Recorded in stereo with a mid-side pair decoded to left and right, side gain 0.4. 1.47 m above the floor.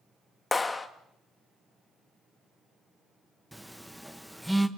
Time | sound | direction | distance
0.5 | a clap | 30° left | 1.9 m
3.5 | a phone buzzing | straight ahead | 1.4 m